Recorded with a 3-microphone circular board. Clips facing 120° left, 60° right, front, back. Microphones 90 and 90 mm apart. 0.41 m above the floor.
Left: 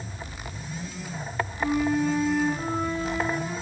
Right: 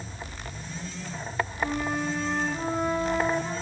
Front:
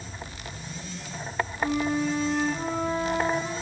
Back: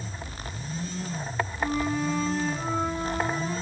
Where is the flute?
15° right, 3 m.